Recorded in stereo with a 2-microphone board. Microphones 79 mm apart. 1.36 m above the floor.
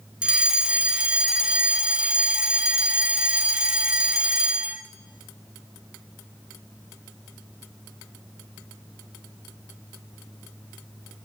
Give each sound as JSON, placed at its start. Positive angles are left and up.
{"t": 0.2, "sound": "a fire alarm", "side_deg": -10, "distance_m": 1.4}